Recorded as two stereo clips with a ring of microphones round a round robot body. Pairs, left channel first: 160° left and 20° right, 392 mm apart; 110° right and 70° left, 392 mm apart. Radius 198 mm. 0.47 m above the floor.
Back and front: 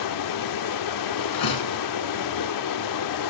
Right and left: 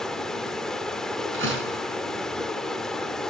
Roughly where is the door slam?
Behind left.